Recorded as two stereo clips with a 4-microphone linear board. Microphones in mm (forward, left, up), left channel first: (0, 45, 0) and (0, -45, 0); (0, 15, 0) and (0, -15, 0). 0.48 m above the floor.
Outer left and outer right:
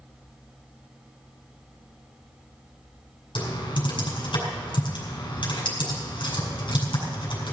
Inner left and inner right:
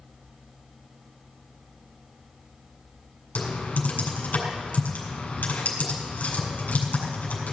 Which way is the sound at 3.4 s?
65° left (ahead or behind).